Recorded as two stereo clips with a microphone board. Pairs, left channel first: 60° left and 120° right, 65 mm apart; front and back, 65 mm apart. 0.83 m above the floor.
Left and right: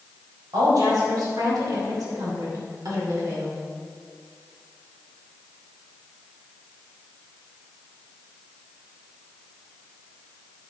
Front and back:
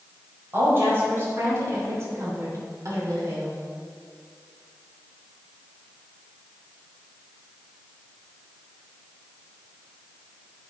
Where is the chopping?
No chopping in this recording.